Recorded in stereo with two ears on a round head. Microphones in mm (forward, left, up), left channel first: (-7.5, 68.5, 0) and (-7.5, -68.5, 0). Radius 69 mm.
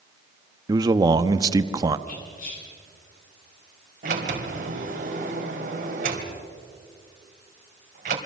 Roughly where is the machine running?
No machine running in this recording.